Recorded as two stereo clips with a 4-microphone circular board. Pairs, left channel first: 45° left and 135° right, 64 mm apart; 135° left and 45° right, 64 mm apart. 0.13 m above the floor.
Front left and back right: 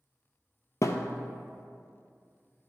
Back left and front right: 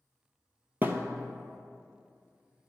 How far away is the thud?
About 0.6 m.